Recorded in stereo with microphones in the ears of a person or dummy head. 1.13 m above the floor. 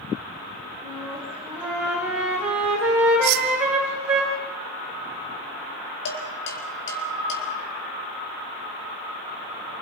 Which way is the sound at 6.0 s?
75° left (ahead or behind).